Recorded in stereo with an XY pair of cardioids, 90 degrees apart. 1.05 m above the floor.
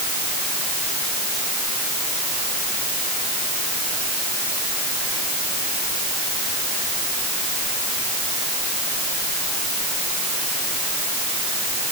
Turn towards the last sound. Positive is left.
No sound to turn to.